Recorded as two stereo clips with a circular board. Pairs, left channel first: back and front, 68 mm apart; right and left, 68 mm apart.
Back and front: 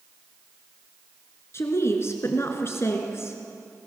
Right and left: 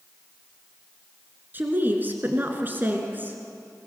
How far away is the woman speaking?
About 2.5 m.